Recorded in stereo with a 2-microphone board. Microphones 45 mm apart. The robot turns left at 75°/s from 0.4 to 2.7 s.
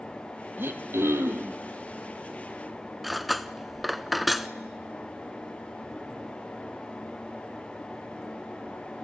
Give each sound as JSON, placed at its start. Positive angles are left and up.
{"t": 0.6, "sound": "throat clearing", "azimuth_deg": -55, "distance_m": 1.5}
{"t": 3.0, "sound": "cutlery clinking", "side_deg": 0, "distance_m": 0.6}